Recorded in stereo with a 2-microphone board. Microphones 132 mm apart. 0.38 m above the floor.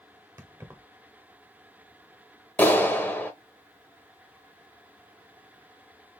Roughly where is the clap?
Centre.